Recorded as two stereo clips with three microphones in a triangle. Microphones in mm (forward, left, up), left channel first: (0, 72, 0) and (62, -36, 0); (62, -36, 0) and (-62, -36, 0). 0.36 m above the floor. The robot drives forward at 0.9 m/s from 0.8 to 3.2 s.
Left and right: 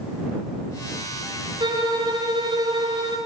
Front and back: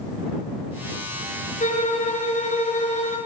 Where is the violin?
5° right, 8 m; by 3.2 s 10° right, 6.5 m.